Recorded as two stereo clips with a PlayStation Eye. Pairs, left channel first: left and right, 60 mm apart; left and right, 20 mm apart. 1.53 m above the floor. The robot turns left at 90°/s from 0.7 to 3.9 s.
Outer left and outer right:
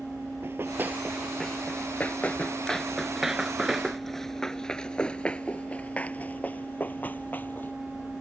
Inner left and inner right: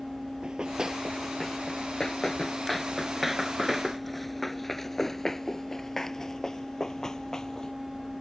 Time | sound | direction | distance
0.4 | running footsteps | 40° right (ahead or behind) | ?